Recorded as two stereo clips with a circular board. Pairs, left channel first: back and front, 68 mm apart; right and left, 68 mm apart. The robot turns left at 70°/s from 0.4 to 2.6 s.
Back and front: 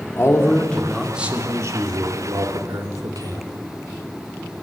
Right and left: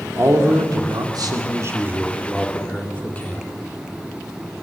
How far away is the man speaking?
About 2.5 m.